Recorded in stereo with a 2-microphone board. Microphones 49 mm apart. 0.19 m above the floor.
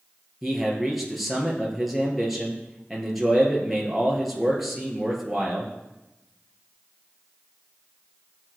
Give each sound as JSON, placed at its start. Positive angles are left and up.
{"t": 0.4, "sound": "a man speaking", "side_deg": 0, "distance_m": 3.0}